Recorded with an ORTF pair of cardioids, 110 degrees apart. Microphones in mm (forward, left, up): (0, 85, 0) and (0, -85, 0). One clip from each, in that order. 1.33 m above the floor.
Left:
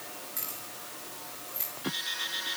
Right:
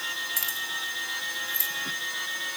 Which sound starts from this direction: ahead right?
Keys jangling, at 0.4 s.